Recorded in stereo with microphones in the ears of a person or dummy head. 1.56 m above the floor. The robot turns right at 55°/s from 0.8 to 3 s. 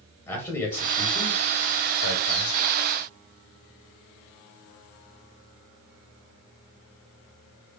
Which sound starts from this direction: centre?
A man speaking, at 0.3 s.